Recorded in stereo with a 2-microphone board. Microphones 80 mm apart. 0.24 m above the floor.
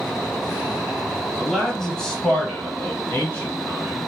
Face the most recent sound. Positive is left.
turn(degrees=20)  # may be behind; listen again after turning